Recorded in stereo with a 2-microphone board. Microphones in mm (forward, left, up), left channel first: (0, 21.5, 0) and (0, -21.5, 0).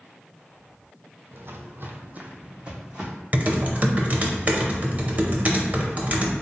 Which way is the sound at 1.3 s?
65° right (ahead or behind).